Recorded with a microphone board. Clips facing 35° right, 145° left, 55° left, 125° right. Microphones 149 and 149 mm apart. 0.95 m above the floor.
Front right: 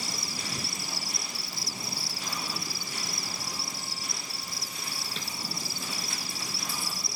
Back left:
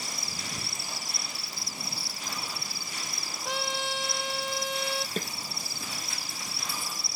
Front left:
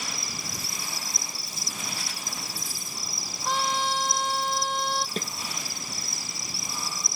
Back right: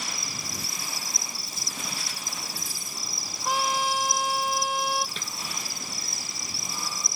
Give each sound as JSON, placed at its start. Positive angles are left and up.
{"t": 0.0, "sound": "an insect", "azimuth_deg": -35}
{"t": 3.5, "sound": "a trumpet", "azimuth_deg": 155}
{"t": 5.2, "sound": "a snare drum", "azimuth_deg": 105}